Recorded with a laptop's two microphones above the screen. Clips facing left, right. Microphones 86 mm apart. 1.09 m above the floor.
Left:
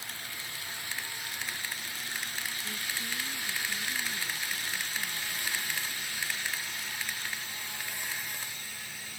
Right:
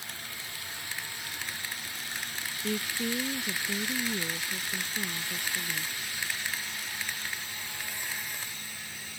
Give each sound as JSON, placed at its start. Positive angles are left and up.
{"t": 2.6, "sound": "a woman speaking", "side_deg": -80}